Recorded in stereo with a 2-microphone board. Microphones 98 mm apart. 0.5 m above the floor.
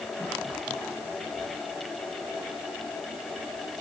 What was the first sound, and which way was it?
Only background noise.